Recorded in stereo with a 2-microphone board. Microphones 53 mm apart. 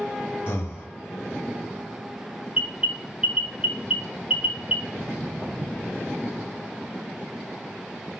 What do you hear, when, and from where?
0.5 s breathing: 45° left (ahead or behind), 0.6 m
2.5 s an alarm: 20° right (ahead or behind), 0.7 m
5.0 s footsteps: 20° right (ahead or behind), 0.9 m